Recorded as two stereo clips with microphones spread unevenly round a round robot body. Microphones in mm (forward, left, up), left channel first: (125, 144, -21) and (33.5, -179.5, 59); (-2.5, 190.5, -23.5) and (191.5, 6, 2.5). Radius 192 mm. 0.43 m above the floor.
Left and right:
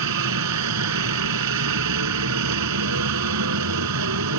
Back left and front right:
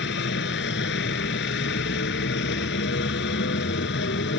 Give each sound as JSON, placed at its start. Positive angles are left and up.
{"t": 0.0, "sound": "a helicopter", "azimuth_deg": -160}